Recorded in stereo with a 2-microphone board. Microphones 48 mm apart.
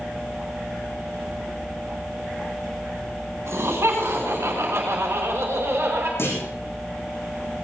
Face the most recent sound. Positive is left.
turn(degrees=55)  # may be behind; listen again after turning